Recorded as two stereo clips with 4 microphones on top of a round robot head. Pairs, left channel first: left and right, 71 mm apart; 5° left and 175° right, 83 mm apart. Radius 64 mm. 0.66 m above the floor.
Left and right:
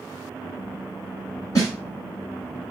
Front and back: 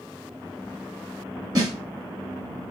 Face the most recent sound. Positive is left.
turn(degrees=145)